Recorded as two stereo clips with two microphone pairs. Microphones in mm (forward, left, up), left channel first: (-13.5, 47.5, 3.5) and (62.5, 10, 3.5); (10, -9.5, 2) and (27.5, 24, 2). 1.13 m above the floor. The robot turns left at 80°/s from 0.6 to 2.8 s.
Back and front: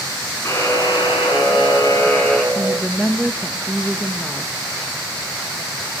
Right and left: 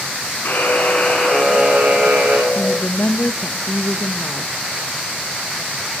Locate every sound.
0.5 s a buzzer: 150° right, 7.5 m; by 2.5 s 65° left, 7.5 m
2.5 s a woman speaking: 95° right, 1.1 m; by 4.5 s 115° right, 1.1 m